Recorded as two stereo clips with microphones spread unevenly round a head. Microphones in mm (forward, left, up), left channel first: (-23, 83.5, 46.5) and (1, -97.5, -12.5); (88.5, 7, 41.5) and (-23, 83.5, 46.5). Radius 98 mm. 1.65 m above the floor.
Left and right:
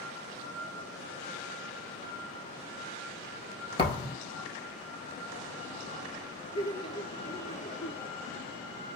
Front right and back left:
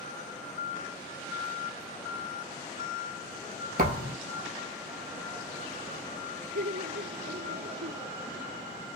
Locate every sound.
3.8 s a thud: 145° left, 3 m
6.5 s laughter: 155° left, 1.7 m